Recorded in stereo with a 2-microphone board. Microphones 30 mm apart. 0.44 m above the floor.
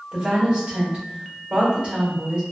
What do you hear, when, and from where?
0.1 s a woman speaking: 30° right (ahead or behind), 1.8 m